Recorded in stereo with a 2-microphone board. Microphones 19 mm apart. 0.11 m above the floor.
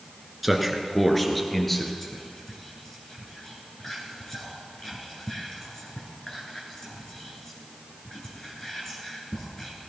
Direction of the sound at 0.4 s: 5° right (ahead or behind).